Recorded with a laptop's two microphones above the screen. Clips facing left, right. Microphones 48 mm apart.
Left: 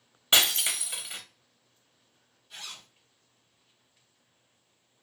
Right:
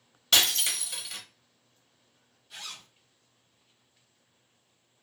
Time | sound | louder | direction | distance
0.3 | breaking glass | left 1 dB | 25° left (ahead or behind) | 0.7 m
2.5 | a zipper | right 1 dB | 5° right (ahead or behind) | 1.1 m